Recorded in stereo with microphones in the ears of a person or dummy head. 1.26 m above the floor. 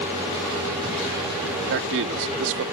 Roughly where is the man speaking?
Right.